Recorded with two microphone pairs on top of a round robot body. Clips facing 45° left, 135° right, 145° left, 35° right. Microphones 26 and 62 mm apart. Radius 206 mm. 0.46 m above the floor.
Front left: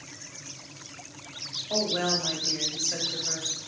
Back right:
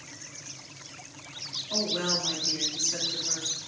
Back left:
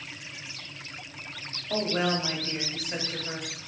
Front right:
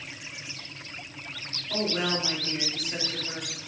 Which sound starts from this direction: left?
A woman speaking, at 1.7 s.